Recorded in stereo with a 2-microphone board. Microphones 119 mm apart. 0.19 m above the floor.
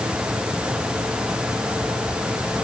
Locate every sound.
Only background noise.